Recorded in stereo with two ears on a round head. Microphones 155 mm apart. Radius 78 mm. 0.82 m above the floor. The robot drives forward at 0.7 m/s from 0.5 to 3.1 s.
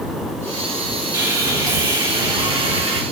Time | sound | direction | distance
1.1 | sawing | 20° right (ahead or behind) | 3 m